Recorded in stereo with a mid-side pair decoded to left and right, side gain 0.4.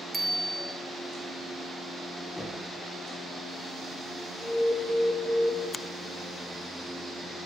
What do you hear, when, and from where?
0.1 s a bicycle bell: 20° right, 5.5 m
2.4 s knocking: 10° left, 9.5 m
4.4 s an alarm: 20° left, 6.5 m
5.7 s a finger snap: 35° left, 1.3 m